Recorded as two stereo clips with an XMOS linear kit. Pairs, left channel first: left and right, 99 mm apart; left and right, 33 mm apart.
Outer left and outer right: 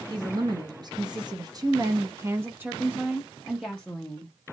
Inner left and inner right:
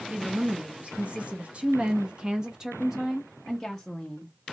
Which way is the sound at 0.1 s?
45° right (ahead or behind).